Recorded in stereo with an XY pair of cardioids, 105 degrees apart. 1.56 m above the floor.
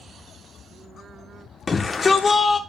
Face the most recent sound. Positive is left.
turn(degrees=35)